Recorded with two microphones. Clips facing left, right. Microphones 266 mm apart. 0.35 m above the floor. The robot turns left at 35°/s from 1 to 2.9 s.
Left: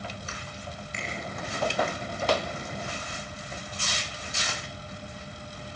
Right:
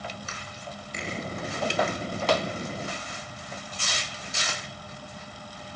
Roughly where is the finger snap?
Right.